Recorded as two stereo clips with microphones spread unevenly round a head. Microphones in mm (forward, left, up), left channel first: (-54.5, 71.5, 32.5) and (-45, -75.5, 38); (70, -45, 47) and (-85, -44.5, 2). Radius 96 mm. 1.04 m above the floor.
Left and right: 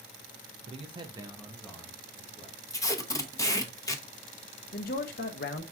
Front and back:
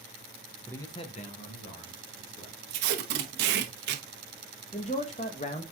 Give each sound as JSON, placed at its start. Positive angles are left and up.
{"t": 0.7, "sound": "a man speaking", "azimuth_deg": -95, "distance_m": 0.9}
{"t": 2.7, "sound": "tape being pulled", "azimuth_deg": 165, "distance_m": 0.8}
{"t": 4.7, "sound": "a man speaking", "azimuth_deg": 60, "distance_m": 0.7}